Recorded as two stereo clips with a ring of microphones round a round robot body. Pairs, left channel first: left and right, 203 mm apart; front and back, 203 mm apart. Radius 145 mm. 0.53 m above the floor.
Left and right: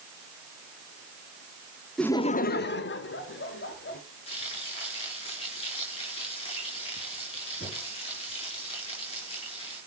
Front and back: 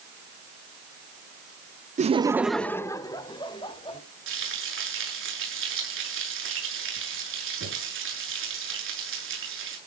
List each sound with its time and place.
2.0 s laughter: 175° left, 0.7 m; by 4.0 s 65° left, 2.5 m
4.3 s frying: 160° left, 8 m